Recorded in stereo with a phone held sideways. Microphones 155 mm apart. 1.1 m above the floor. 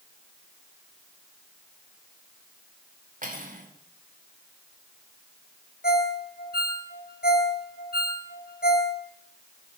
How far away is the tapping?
No tapping in this recording.